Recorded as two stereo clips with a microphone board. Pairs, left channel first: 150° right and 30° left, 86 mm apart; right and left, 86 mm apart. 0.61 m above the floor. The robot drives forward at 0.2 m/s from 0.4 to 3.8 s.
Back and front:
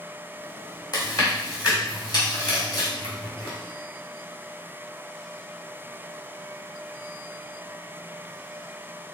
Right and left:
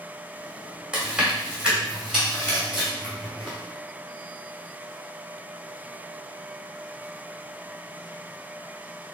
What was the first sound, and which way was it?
Chewing, 170° left.